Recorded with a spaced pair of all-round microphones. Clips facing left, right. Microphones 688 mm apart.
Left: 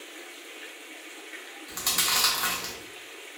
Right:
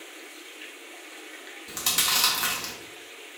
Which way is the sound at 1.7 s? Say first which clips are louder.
Right 1 dB; 60° right (ahead or behind).